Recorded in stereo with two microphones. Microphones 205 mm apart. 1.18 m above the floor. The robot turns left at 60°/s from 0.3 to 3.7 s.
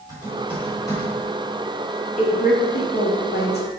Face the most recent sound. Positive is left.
turn(degrees=45)  # may be behind; listen again after turning